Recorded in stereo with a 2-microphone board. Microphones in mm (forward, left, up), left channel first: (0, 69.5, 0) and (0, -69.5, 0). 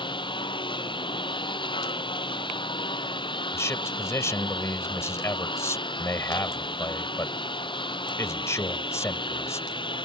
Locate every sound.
0.0 s a lawn mower: 35° left (ahead or behind)
3.5 s a man speaking: 20° left (ahead or behind)